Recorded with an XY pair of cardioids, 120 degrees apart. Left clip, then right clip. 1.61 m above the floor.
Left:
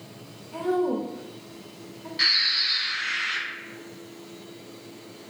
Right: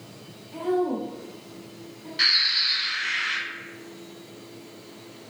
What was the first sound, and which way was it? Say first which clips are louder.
A woman speaking: even; 40° left.